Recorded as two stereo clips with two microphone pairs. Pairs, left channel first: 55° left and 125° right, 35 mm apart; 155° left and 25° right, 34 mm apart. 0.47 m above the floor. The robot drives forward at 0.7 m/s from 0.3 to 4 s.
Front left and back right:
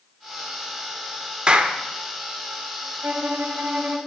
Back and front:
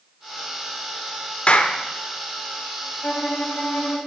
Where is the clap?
170° right, 0.7 m.